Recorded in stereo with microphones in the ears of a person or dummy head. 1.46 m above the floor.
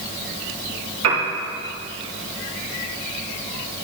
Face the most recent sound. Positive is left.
turn(degrees=-85)